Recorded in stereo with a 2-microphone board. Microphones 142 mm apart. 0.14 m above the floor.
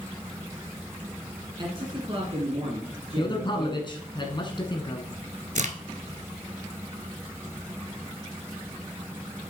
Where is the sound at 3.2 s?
35° left (ahead or behind), 1.3 m.